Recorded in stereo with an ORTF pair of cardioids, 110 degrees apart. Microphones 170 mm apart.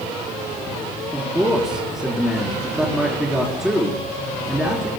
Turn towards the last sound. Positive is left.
turn(degrees=-5)